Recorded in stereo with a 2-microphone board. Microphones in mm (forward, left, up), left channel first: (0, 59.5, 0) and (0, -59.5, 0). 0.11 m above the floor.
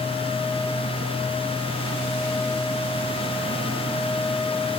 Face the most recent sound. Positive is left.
No sound to turn to.